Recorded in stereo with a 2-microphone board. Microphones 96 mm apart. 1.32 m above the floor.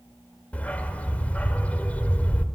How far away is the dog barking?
About 1.1 m.